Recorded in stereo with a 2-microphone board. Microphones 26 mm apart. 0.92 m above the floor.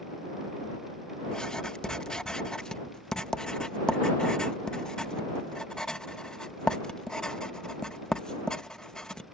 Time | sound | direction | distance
1.3 | writing | 30° left (ahead or behind) | ?